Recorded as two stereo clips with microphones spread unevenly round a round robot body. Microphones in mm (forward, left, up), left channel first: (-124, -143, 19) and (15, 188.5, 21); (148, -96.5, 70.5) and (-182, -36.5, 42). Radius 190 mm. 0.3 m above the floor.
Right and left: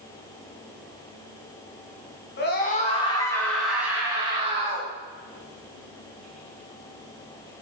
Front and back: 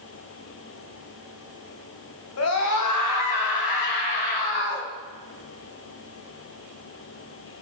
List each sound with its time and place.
2.4 s a scream: 55° right, 3 m; by 4.9 s 5° right, 4.5 m